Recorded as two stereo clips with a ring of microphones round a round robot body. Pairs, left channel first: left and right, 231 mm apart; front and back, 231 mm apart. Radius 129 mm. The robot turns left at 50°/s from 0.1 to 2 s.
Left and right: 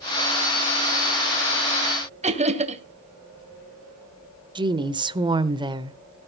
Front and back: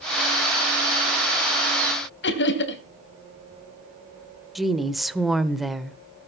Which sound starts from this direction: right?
A woman speaking, at 4.5 s.